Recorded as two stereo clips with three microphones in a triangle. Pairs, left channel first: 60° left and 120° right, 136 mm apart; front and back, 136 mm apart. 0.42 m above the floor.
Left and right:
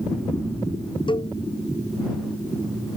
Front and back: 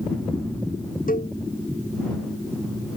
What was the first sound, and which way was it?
A cowbell, 5° left.